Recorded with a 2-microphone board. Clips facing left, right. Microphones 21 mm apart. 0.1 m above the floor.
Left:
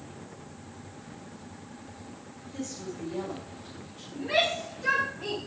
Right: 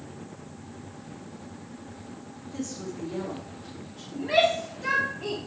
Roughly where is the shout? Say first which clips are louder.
Right 4 dB; right.